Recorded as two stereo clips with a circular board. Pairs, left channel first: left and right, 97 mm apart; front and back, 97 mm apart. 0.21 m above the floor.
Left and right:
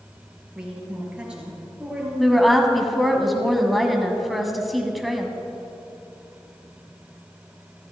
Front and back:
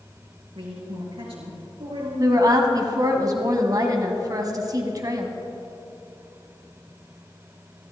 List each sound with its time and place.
0.6 s a woman speaking: 170° right, 4 m
2.2 s a woman speaking: straight behind, 1.4 m